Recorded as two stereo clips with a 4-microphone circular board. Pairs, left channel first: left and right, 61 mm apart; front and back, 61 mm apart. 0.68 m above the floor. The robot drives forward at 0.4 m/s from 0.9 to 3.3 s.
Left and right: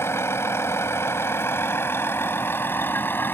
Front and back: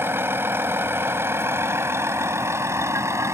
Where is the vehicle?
135° left; by 3.4 s 145° left.